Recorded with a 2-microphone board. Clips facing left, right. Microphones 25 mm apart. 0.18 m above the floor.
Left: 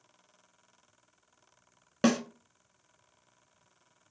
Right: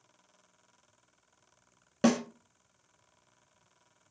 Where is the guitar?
No guitar in this recording.